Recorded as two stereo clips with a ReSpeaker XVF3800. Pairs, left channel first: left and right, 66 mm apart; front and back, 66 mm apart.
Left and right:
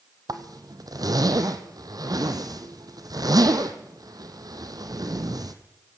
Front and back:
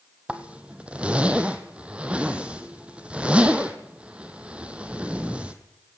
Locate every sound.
0.3 s a zipper: 105° right, 1.7 m